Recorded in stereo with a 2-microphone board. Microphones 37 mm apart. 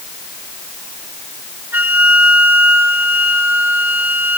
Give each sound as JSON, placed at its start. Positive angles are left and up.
{"t": 1.7, "sound": "a flute", "side_deg": -60, "distance_m": 2.0}